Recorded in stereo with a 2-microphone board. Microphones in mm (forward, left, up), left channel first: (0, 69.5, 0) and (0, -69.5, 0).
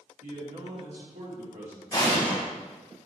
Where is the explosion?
30° left (ahead or behind), 3 m.